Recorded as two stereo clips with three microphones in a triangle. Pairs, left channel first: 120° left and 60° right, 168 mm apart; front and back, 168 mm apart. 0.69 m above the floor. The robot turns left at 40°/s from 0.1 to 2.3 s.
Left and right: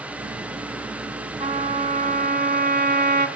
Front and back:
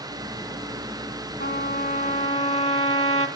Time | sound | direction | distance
1.4 | a trumpet | 15° right | 1.4 m